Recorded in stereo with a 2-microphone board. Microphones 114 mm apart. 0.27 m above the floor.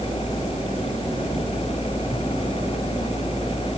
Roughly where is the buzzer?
I don't hear a buzzer.